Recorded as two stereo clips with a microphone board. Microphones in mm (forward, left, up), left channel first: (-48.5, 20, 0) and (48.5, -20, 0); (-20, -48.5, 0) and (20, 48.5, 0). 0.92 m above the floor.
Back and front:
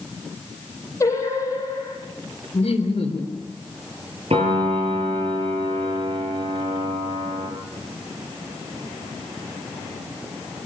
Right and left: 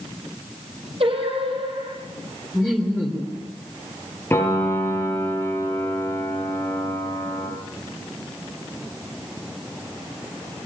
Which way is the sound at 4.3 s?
45° right.